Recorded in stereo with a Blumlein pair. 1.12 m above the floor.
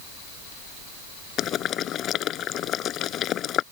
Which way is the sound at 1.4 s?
30° left.